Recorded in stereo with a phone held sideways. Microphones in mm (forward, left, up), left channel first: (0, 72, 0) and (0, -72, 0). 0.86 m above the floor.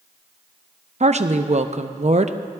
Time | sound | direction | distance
1.0 | a woman speaking | 50° right (ahead or behind) | 0.6 m